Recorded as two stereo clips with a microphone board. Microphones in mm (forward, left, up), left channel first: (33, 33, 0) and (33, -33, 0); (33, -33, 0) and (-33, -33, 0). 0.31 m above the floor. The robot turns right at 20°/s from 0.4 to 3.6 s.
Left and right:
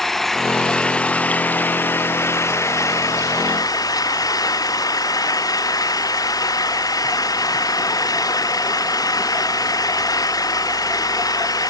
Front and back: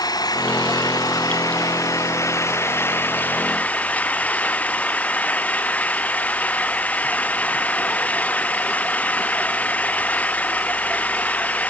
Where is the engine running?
5° left; by 11.7 s 65° left.